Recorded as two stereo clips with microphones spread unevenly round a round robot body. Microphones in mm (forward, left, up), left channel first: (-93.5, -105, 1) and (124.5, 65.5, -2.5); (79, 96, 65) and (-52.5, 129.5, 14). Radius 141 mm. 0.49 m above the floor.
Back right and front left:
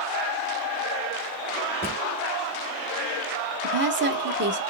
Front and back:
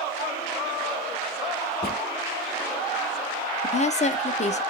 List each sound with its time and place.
1.8 s a drawer: 60° right, 3 m
3.6 s a woman speaking: 30° left, 0.8 m